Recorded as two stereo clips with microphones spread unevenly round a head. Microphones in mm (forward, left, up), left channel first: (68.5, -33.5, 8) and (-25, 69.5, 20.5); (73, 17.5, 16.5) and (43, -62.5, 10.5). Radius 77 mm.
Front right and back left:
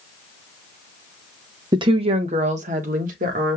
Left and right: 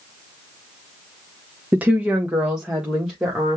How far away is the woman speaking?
About 0.7 m.